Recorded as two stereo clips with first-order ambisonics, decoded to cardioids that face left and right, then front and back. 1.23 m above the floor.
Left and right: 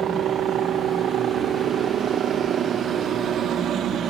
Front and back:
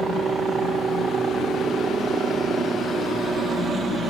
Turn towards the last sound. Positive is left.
turn(degrees=-120)